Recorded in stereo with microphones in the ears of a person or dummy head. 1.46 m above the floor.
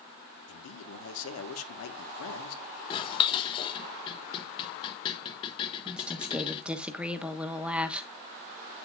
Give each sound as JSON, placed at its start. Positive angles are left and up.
{"t": 0.5, "sound": "a man speaking", "side_deg": 80, "distance_m": 1.6}
{"t": 2.9, "sound": "dishes clattering", "side_deg": 30, "distance_m": 1.0}
{"t": 5.8, "sound": "a woman speaking", "side_deg": -5, "distance_m": 1.2}